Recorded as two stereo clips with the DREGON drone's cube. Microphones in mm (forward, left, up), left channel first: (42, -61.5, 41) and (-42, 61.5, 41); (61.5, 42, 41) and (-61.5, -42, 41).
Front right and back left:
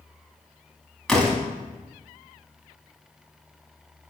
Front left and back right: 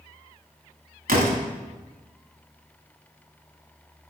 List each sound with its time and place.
1.1 s a door slam: 145° right, 1.6 m